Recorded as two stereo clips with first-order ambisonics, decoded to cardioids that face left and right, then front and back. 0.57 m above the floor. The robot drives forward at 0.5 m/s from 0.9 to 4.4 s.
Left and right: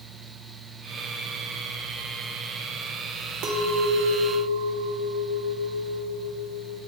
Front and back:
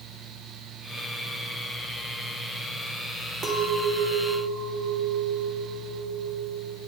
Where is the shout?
No shout in this recording.